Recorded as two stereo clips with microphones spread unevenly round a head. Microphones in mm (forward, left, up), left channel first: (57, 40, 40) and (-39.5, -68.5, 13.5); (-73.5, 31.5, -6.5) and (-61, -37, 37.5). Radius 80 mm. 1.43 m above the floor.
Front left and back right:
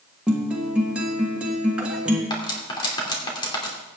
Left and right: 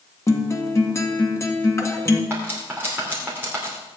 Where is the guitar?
145° left, 1.7 m.